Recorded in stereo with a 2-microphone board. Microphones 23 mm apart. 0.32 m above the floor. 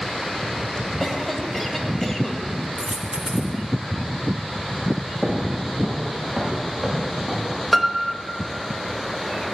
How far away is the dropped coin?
About 2.0 m.